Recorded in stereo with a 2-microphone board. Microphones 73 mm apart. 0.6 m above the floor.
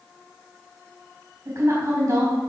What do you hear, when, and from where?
1.4 s a woman speaking: 40° right (ahead or behind), 4 m